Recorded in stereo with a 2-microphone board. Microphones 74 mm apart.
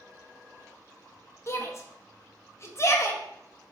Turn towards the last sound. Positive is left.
turn(degrees=40)  # may be behind; listen again after turning